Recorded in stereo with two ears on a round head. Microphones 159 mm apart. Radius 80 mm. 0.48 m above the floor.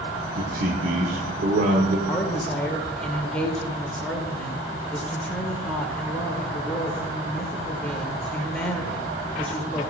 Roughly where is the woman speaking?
Centre.